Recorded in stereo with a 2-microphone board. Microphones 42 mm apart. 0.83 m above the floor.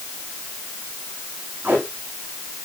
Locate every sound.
1.6 s tape being pulled: 60° right (ahead or behind), 9 m